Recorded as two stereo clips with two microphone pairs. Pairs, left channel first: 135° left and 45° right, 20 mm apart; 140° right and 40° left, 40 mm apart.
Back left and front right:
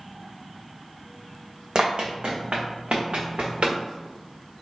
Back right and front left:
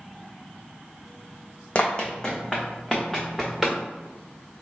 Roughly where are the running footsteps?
Right.